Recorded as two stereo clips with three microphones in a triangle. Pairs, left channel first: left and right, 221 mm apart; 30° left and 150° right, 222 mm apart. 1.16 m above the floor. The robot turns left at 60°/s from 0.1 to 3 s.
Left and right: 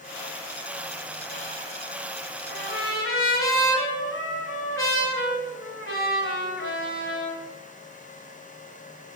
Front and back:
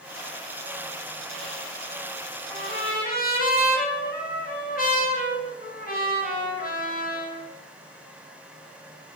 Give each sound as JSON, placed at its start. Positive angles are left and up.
{"t": 2.5, "sound": "a trumpet", "azimuth_deg": 105, "distance_m": 2.5}